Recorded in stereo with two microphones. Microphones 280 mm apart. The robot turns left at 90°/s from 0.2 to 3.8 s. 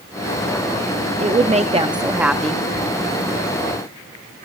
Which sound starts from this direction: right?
A woman speaking, at 1.2 s.